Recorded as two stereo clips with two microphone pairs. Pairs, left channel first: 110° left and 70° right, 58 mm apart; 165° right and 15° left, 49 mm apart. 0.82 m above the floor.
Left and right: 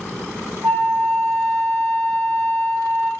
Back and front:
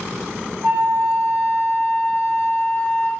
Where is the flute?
5° right, 2.0 m.